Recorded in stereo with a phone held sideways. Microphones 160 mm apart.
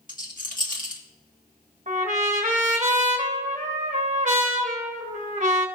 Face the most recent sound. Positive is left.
turn(degrees=-50)  # may be behind; listen again after turning